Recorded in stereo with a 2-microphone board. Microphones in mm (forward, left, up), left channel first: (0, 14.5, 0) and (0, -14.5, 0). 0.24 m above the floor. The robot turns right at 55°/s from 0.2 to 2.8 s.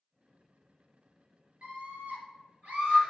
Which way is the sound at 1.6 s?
125° right.